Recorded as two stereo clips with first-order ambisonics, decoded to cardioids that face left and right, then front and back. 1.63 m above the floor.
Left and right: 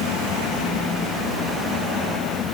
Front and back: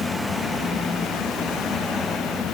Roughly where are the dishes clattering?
I don't hear dishes clattering.